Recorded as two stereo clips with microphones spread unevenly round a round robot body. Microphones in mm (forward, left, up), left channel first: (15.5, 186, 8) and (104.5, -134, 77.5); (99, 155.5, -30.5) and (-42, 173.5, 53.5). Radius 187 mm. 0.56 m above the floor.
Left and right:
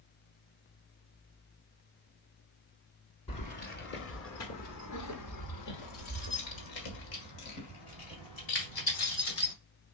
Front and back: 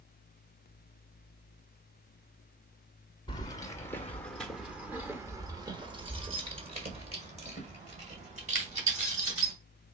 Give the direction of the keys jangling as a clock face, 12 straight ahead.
11 o'clock.